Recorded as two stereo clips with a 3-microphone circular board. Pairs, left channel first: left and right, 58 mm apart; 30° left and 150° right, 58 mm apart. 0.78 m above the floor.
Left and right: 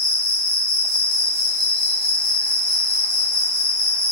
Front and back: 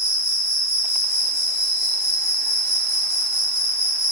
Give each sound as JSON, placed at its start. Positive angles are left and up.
{"t": 0.0, "sound": "an insect", "azimuth_deg": -70, "distance_m": 0.8}